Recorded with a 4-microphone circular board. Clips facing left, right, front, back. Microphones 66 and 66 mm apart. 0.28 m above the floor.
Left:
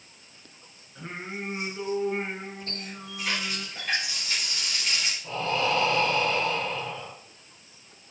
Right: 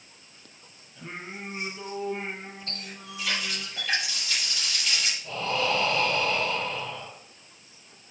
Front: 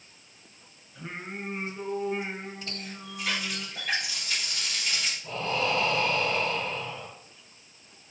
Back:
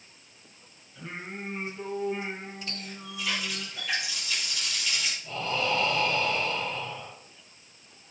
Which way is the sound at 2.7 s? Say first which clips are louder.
Left 2 dB, even; 45° left.